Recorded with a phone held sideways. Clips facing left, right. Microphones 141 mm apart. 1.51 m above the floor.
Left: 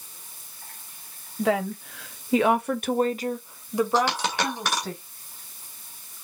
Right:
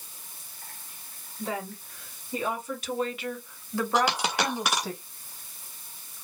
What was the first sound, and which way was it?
A woman speaking, 75° left (ahead or behind).